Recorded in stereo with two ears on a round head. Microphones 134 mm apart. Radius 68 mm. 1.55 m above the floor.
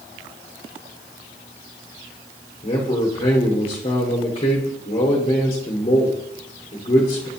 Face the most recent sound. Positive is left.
turn(degrees=35)  # may be behind; listen again after turning